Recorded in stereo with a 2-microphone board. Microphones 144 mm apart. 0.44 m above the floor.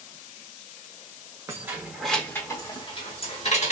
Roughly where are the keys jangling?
Centre.